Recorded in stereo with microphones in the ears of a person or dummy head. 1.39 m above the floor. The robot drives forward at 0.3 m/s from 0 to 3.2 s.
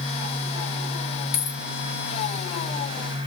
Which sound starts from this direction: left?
A dropped coin, at 1.3 s.